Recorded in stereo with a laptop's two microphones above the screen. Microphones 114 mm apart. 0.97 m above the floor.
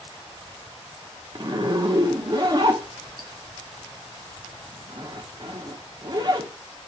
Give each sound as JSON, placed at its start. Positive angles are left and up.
{"t": 1.4, "sound": "a zipper", "side_deg": -40, "distance_m": 0.8}